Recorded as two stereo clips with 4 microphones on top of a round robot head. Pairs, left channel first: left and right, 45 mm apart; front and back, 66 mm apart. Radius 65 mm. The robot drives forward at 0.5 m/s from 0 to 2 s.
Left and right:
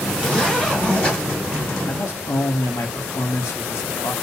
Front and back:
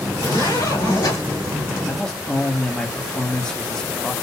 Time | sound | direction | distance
0.1 | a zipper | 20° left | 2.5 m
1.9 | a man speaking | 75° left | 1.0 m